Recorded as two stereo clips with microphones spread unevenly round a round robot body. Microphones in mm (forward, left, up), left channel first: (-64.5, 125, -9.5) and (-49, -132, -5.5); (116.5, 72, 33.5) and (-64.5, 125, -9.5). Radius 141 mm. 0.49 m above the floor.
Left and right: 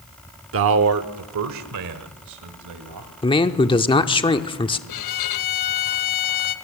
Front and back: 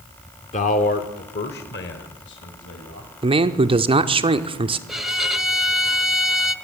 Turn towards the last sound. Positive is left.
turn(degrees=80)